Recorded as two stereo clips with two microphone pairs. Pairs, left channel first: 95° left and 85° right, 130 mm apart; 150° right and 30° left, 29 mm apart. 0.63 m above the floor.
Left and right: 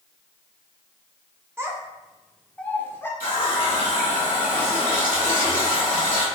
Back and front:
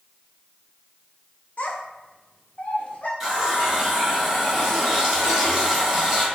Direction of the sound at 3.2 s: 100° left.